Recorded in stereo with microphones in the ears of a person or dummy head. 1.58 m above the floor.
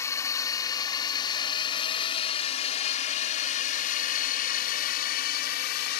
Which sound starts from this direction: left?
A drone, at 0.0 s.